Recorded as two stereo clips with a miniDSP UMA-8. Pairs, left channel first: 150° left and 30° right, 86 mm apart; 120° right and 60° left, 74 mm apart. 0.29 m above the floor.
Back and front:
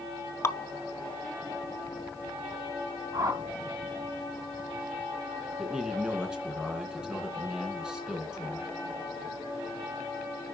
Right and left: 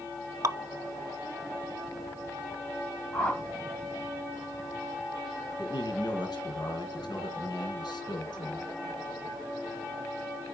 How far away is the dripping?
About 0.6 m.